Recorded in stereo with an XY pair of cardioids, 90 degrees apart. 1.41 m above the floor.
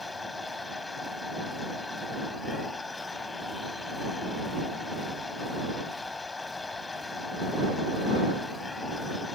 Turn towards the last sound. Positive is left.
turn(degrees=30)